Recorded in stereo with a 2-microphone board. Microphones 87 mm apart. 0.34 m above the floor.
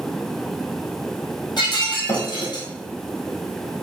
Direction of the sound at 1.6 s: 55° left (ahead or behind).